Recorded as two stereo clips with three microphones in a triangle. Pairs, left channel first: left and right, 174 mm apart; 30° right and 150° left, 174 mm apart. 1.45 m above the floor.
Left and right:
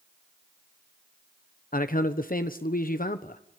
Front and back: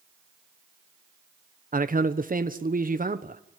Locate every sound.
1.7 s a man speaking: 120° left, 1.0 m